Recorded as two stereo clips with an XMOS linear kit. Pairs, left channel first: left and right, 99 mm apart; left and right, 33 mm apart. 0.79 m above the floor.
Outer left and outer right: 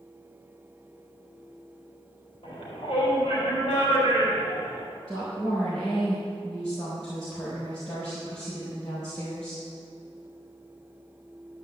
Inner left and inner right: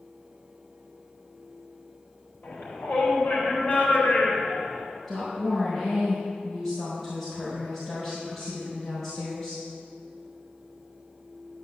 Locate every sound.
2.4 s a shout: 50° left (ahead or behind), 4 m
5.1 s a woman speaking: 5° left (ahead or behind), 4.5 m